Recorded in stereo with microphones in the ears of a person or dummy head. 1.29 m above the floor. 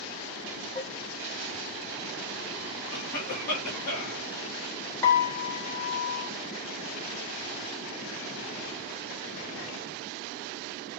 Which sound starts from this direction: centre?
A piano, at 5.0 s.